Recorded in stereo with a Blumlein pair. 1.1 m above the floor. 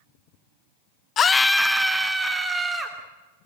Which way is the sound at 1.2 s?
25° left.